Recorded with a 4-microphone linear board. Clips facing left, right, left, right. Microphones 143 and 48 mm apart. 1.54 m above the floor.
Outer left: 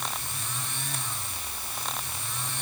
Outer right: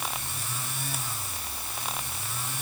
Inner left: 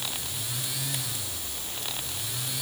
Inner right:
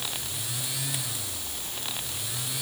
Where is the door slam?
No door slam in this recording.